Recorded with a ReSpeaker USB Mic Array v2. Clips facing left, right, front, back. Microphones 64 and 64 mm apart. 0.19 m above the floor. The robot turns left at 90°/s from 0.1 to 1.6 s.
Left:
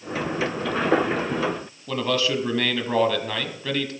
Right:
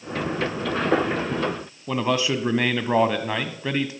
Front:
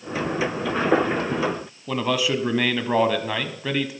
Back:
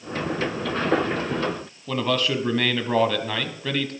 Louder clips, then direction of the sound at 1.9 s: Right 1 dB, front 1 dB; 65° right.